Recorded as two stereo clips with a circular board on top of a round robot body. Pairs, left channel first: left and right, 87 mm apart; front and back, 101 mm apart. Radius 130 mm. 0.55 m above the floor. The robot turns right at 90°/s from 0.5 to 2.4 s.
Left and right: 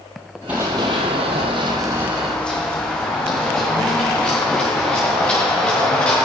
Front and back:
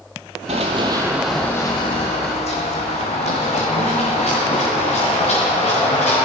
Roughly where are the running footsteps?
Behind.